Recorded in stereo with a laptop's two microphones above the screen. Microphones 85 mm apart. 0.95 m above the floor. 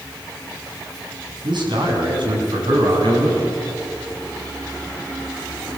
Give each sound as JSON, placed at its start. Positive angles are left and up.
{"t": 1.4, "sound": "a man speaking", "side_deg": -65, "distance_m": 7.0}